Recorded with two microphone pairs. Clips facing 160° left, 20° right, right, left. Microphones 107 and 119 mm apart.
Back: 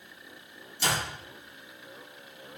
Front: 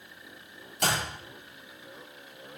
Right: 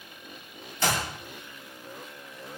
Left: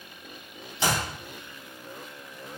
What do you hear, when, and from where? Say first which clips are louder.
0.8 s a clap: front 1 dB, left 1 dB; 15° left, 9 m